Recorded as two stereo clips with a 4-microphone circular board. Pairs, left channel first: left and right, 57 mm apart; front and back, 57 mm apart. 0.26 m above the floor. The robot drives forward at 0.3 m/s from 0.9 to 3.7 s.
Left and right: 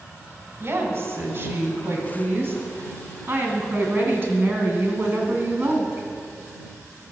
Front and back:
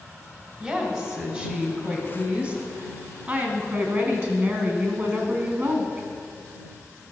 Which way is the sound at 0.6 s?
120° right.